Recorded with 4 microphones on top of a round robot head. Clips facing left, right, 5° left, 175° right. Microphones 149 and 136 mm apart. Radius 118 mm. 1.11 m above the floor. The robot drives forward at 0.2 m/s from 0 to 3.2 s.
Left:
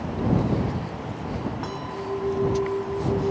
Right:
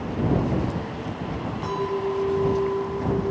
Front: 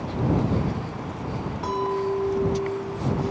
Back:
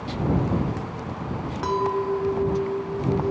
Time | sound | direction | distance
1.6 | a clink | 175° right | 1.3 m